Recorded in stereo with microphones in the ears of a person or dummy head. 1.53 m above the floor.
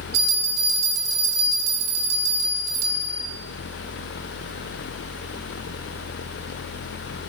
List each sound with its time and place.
0.1 s a bell: 50° right (ahead or behind), 1.6 m